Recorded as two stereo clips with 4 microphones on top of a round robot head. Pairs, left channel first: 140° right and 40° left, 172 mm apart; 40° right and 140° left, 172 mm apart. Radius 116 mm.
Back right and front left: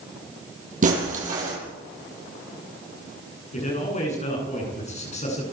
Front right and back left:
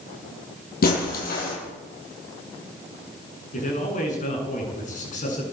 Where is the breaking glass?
5° right, 9.5 m.